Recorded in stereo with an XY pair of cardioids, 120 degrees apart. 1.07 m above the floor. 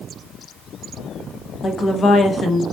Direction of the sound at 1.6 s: 35° left.